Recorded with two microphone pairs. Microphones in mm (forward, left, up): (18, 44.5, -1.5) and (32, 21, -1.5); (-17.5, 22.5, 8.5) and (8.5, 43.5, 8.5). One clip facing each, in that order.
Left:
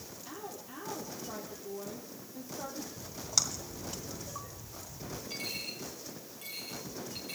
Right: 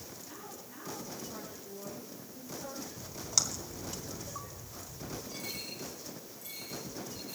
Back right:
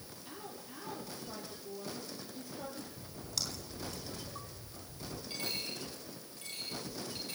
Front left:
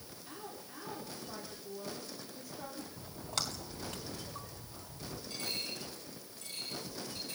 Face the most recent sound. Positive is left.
turn(degrees=155)